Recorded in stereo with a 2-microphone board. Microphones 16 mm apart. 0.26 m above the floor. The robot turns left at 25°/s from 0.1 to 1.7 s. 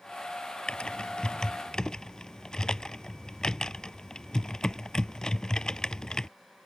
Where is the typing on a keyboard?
65° left (ahead or behind); by 6.3 s 40° left (ahead or behind).